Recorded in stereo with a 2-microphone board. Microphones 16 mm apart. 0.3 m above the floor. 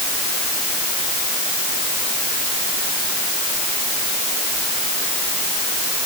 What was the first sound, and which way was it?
Only background noise.